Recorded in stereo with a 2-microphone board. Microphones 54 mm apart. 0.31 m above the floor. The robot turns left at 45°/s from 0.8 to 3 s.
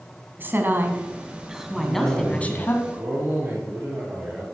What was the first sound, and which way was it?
A woman speaking, 135° right.